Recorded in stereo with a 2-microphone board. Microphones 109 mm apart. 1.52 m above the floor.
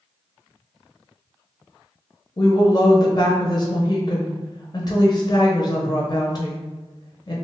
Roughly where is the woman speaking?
Left.